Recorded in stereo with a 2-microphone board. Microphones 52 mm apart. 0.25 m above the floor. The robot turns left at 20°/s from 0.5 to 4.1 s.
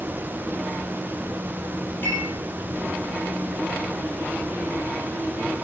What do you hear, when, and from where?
2.0 s dishes clattering: 35° left (ahead or behind), 8 m; by 2.3 s 40° left (ahead or behind), 8 m